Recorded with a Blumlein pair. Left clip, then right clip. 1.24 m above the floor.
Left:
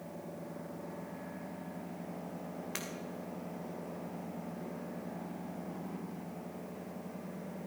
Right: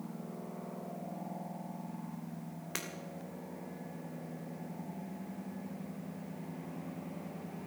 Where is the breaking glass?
5° right, 2.5 m.